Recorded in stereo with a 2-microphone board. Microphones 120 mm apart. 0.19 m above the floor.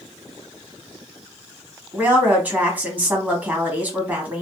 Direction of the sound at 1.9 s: 15° right (ahead or behind).